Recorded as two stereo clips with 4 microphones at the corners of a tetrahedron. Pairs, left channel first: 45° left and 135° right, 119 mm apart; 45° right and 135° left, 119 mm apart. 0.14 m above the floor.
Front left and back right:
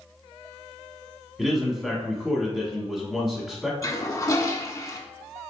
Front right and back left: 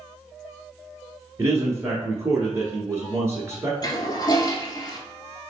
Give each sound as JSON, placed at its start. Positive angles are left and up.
{"t": 1.4, "sound": "a man speaking", "azimuth_deg": 140, "distance_m": 1.1}
{"t": 3.8, "sound": "a toilet flushing", "azimuth_deg": -10, "distance_m": 0.7}